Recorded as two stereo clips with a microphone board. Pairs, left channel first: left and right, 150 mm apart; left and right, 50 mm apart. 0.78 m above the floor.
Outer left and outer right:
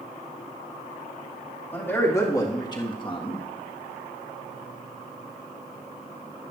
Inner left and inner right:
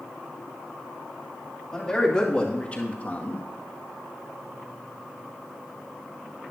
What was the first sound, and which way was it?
A man speaking, 15° left (ahead or behind).